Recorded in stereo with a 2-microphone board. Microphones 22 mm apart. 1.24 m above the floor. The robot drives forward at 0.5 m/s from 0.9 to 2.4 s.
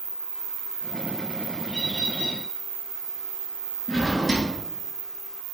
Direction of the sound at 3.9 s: Centre (ahead or behind).